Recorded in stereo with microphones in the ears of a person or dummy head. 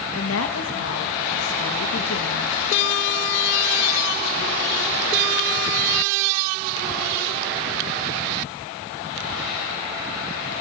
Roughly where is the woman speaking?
Left.